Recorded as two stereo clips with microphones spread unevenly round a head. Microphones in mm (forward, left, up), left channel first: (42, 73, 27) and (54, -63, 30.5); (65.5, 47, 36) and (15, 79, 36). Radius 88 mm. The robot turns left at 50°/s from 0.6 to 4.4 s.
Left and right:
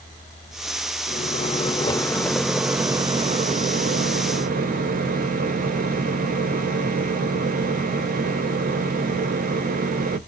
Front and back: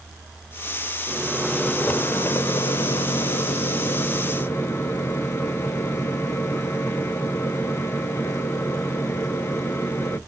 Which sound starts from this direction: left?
A microwave, at 1.1 s.